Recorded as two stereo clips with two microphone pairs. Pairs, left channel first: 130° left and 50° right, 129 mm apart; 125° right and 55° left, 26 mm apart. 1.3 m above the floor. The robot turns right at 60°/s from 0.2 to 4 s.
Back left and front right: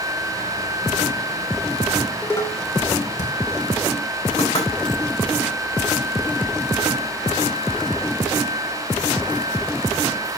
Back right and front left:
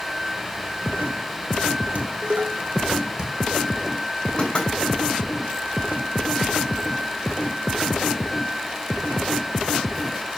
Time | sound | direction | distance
1.9 | dishes clattering | 40° left | 3 m
4.4 | knocking | 175° left | 8 m